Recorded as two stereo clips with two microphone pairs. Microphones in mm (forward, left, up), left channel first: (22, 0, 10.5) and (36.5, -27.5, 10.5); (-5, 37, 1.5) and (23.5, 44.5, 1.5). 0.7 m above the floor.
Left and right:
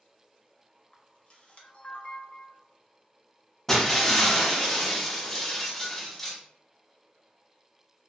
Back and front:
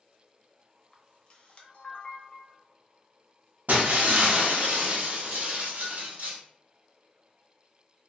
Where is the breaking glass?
35° left, 0.6 m.